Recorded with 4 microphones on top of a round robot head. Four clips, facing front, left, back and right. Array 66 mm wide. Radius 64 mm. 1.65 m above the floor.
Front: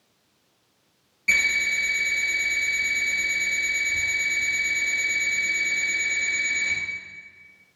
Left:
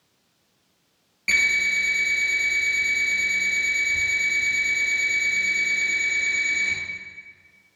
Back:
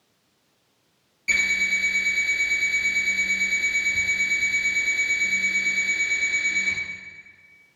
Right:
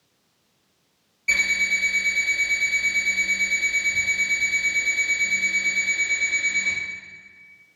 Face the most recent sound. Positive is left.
turn(degrees=70)